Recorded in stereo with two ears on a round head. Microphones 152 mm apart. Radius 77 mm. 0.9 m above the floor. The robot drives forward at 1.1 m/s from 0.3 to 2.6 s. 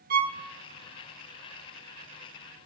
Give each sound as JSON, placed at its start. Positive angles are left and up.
{"t": 0.1, "sound": "a violin", "side_deg": -55, "distance_m": 0.6}